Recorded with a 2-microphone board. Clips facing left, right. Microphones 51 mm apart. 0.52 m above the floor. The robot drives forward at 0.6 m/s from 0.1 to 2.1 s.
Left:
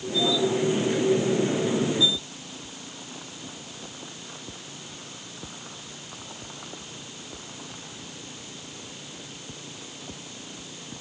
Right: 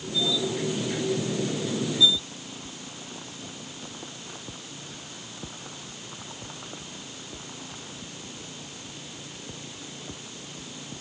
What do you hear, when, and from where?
Only background noise.